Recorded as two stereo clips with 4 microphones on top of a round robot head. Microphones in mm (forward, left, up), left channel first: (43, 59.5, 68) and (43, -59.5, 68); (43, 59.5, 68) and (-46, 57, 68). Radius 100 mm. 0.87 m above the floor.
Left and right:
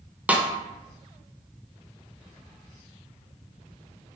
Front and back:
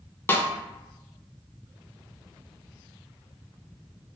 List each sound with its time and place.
0.3 s a snare drum: 25° right, 0.6 m